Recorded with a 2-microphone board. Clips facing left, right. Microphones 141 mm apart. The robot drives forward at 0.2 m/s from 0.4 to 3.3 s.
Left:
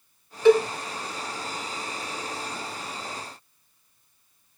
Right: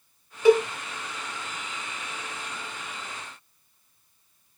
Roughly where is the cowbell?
Centre.